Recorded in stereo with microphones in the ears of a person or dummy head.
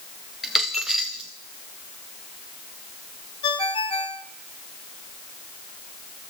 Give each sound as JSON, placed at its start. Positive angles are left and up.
{"t": 0.4, "sound": "a dropped coin", "side_deg": -5, "distance_m": 0.7}
{"t": 3.4, "sound": "a ringtone", "side_deg": 25, "distance_m": 1.1}